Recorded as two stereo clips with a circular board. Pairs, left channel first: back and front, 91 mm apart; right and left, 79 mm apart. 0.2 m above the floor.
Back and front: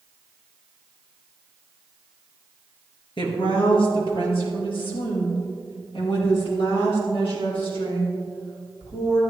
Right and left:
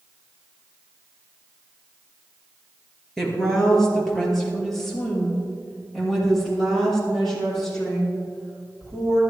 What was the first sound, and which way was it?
A woman speaking, 175° right.